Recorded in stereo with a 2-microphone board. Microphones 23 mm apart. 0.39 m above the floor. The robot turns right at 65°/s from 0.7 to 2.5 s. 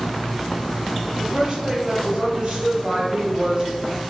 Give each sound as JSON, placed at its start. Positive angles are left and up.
{"t": 1.2, "sound": "a woman speaking", "azimuth_deg": -175, "distance_m": 1.9}